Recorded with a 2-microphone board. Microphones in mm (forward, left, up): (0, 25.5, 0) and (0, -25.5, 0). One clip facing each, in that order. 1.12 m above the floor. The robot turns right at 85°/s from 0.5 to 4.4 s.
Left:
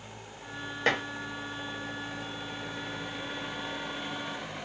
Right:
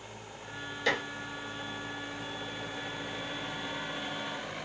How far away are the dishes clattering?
About 1.0 m.